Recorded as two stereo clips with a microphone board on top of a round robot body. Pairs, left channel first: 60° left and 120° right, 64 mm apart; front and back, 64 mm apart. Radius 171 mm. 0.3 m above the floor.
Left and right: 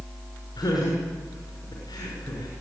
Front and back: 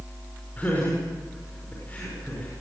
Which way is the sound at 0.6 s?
65° left.